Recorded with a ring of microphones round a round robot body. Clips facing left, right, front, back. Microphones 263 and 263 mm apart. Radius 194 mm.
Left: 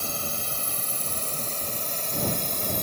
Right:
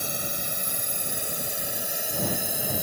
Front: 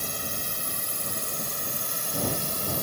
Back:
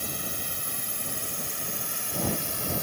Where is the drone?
25° right; by 2.8 s 10° right.